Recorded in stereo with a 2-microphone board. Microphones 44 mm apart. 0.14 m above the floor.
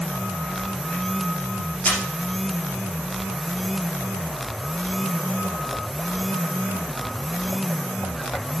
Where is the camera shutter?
45° left (ahead or behind), 2.5 m.